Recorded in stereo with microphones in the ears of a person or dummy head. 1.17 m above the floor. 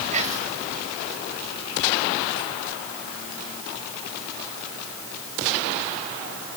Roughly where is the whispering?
Right.